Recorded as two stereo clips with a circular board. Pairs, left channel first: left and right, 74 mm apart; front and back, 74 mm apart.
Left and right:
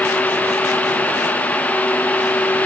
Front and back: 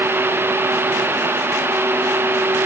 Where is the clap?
I don't hear a clap.